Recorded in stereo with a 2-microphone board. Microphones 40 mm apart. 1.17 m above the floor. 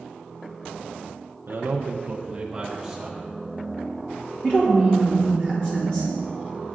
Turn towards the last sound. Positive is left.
turn(degrees=35)  # may be behind; listen again after turning